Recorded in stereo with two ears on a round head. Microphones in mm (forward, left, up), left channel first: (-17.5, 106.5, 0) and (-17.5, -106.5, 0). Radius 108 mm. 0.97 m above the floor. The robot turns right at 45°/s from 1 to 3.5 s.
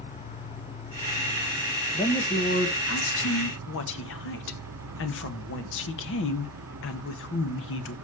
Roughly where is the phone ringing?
No phone ringing in this recording.